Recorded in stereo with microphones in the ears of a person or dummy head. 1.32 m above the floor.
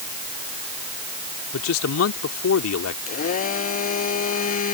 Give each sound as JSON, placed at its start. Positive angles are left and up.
{"t": 1.5, "sound": "a man speaking", "side_deg": 85}
{"t": 3.1, "sound": "a blender", "side_deg": 45}